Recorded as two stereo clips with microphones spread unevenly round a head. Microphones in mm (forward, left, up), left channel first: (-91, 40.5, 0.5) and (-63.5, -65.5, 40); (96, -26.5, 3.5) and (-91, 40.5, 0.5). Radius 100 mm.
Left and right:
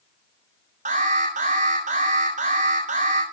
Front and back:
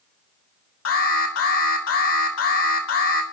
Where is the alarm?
45° right, 7 m.